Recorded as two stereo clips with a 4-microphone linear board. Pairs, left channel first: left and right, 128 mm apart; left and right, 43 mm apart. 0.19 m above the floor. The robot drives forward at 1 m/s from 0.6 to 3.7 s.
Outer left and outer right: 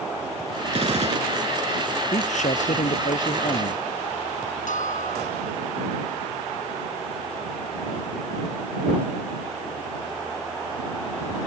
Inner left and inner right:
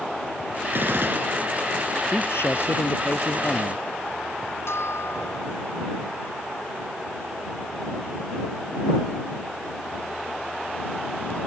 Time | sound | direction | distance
0.7 | a gunshot | 55° right (ahead or behind) | ?
2.1 | a man speaking | 70° left (ahead or behind) | ?
4.7 | a bell | 75° left (ahead or behind) | ?